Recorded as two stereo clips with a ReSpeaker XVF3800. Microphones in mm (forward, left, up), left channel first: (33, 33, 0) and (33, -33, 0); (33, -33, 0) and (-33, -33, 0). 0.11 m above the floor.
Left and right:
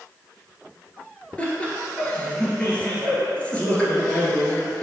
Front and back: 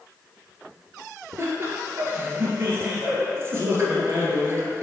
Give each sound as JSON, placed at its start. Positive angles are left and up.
{"t": 1.4, "sound": "laughter", "azimuth_deg": 150, "distance_m": 1.7}